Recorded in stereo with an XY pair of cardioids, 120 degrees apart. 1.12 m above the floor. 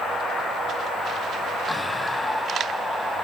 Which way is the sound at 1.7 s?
10° left.